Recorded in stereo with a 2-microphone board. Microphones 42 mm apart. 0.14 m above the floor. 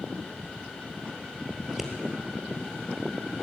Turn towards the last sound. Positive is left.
turn(degrees=-5)  # may be behind; listen again after turning